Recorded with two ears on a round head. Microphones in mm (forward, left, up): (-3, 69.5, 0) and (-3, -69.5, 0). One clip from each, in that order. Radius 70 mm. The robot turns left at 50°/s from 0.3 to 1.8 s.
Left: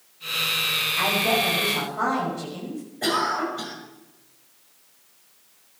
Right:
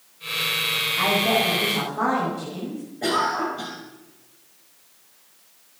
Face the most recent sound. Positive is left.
turn(degrees=35)  # may be behind; listen again after turning